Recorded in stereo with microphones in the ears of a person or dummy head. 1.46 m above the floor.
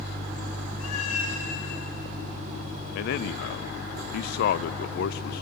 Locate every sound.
0.8 s a cat meowing: 50° left (ahead or behind), 3.5 m
3.0 s a man speaking: 50° left (ahead or behind), 0.6 m